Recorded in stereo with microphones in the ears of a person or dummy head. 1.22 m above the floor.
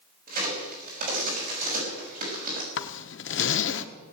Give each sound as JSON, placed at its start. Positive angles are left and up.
{"t": 0.3, "sound": "a crack", "side_deg": -40, "distance_m": 6.0}
{"t": 2.8, "sound": "a zipper", "side_deg": 60, "distance_m": 1.0}